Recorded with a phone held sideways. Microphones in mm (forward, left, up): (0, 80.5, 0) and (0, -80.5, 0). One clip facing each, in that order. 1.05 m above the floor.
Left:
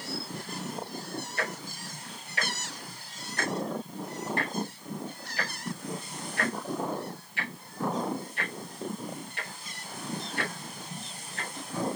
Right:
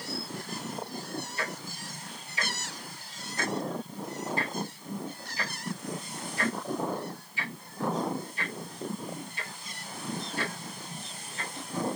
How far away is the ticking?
About 1.2 m.